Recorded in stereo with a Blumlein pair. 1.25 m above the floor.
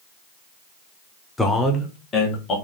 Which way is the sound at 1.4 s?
5° left.